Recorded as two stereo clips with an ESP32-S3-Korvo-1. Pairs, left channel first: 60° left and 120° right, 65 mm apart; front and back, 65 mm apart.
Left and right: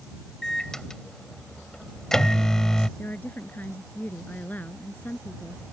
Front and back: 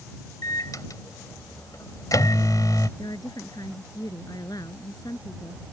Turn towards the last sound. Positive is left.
turn(degrees=-5)